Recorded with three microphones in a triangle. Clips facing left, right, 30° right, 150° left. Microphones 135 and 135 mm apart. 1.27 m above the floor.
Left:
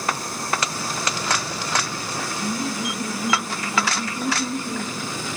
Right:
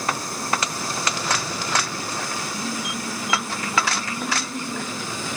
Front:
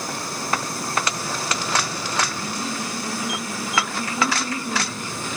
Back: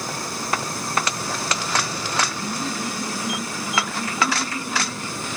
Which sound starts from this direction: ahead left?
Laughter, at 2.4 s.